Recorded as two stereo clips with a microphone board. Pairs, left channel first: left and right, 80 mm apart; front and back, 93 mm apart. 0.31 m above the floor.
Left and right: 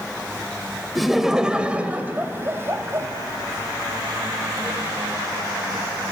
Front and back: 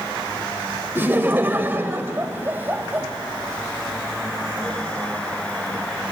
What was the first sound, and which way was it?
Laughter, straight behind.